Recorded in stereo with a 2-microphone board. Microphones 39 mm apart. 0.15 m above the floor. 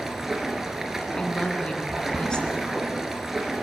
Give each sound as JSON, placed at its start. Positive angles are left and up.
{"t": 0.0, "sound": "running water", "side_deg": -10, "distance_m": 1.9}
{"t": 1.1, "sound": "a woman speaking", "side_deg": 25, "distance_m": 1.8}